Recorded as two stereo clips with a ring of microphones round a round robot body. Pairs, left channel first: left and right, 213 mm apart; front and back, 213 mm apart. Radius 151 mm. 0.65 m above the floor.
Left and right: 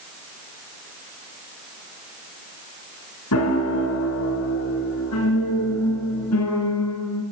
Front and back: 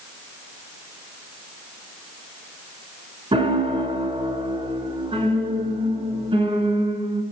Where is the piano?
115° left, 3.5 m.